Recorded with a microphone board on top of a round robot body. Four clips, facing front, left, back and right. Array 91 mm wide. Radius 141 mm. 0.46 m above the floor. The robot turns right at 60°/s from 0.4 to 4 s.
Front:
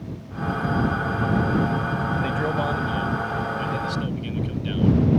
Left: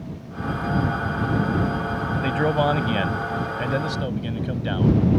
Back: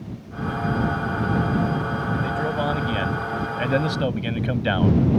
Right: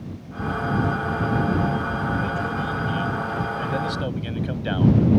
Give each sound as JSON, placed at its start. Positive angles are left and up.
{"t": 2.2, "sound": "a man speaking", "azimuth_deg": 75}